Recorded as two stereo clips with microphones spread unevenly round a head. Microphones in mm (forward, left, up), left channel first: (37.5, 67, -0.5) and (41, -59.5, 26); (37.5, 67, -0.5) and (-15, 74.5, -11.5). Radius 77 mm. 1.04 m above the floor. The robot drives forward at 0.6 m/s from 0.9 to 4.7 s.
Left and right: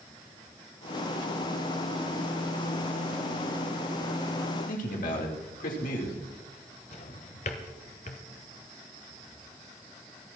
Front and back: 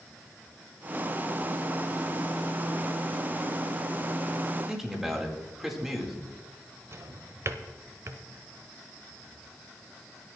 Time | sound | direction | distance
4.7 | a man speaking | 90° left | 4 m
6.9 | a drawer | 140° left | 1.1 m